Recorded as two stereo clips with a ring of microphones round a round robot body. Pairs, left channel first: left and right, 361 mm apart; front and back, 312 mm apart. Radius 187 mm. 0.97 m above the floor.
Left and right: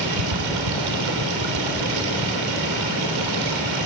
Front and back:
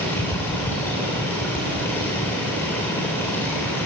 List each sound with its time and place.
0.0 s running water: 85° right, 3 m